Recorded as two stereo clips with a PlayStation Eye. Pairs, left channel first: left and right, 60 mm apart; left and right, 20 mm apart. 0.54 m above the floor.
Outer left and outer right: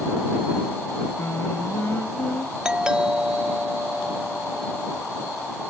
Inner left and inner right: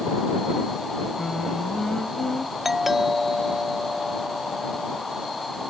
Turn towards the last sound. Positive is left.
turn(degrees=-15)  # may be behind; listen again after turning